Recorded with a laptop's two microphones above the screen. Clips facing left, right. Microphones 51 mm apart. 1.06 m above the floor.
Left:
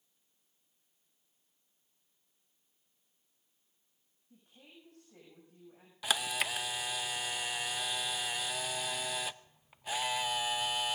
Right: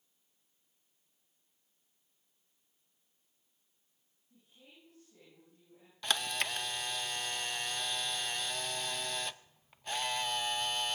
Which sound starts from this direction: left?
A woman speaking, at 4.3 s.